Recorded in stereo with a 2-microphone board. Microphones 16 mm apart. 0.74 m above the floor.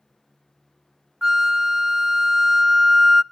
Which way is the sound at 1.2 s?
25° right (ahead or behind).